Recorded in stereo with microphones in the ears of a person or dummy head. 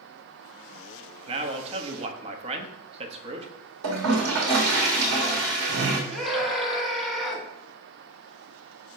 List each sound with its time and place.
1.3 s a man speaking: 35° right (ahead or behind), 1.1 m
3.8 s a toilet flushing: 70° right (ahead or behind), 1.6 m
6.1 s a scream: centre (ahead or behind), 2 m